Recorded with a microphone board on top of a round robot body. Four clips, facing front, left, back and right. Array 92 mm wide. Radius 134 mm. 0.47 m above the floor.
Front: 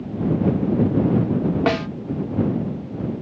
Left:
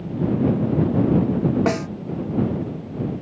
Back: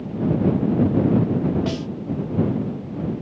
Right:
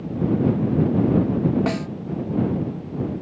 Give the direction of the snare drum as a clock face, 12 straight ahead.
11 o'clock.